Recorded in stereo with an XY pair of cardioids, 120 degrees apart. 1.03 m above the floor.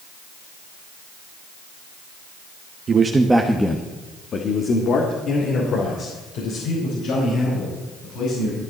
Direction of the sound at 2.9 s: 35° right.